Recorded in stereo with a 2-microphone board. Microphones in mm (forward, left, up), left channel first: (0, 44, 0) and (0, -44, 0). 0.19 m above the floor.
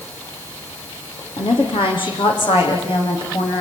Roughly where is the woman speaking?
Left.